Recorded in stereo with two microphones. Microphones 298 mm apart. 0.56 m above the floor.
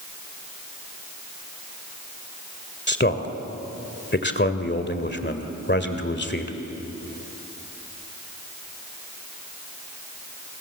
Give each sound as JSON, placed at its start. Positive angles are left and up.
{"t": 2.9, "sound": "a man speaking", "side_deg": 35, "distance_m": 1.8}